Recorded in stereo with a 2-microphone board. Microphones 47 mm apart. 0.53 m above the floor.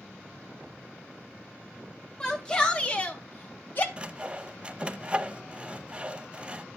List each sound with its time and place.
2.2 s a shout: 15° left (ahead or behind), 2 m; by 3.9 s 45° left (ahead or behind), 1.4 m
4.0 s sawing: 25° right (ahead or behind), 0.6 m